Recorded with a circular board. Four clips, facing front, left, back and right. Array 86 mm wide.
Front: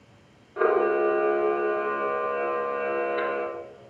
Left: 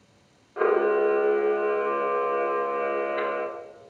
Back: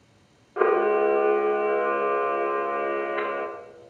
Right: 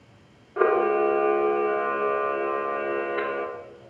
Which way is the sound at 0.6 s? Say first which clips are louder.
Right 1 dB, back 1 dB; 150° right.